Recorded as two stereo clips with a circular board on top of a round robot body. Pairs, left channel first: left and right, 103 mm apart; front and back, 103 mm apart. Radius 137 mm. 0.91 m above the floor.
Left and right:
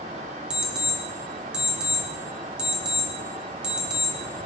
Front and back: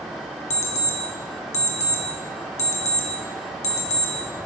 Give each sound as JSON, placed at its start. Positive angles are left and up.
{"t": 0.5, "sound": "an alarm clock", "azimuth_deg": -10, "distance_m": 1.1}